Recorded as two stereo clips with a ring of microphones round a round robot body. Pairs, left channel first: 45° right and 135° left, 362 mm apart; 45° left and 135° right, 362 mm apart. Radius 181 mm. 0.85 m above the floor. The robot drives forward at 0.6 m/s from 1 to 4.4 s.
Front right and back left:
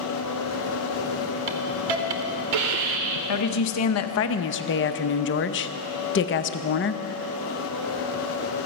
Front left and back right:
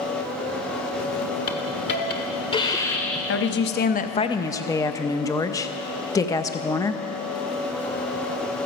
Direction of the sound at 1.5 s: 95° left.